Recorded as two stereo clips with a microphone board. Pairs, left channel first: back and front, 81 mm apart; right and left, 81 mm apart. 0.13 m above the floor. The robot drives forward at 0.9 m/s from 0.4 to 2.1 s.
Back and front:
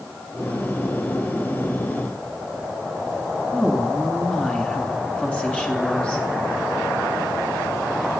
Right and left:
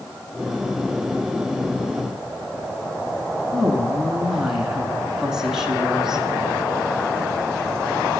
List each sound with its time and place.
3.5 s a woman speaking: 155° left, 1.0 m